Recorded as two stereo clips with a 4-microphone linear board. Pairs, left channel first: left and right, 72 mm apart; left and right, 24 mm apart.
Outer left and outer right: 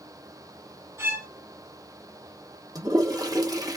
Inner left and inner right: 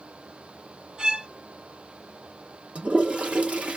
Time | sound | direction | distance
1.0 | a violin | 45° right (ahead or behind) | 2.5 m
2.8 | a toilet flushing | 60° right (ahead or behind) | 1.1 m